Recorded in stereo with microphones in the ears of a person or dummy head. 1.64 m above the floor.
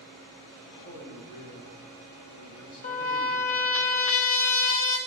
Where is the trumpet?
40° left (ahead or behind), 1.1 m.